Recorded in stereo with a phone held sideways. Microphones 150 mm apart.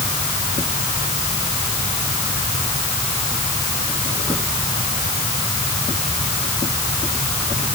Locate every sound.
Only background noise.